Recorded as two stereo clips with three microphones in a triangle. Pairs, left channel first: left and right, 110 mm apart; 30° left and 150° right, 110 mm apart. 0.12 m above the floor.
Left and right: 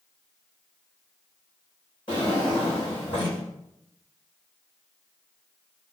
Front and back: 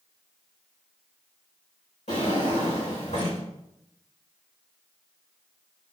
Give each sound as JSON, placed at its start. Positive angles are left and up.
{"t": 2.1, "sound": "a drawer", "azimuth_deg": 45, "distance_m": 2.5}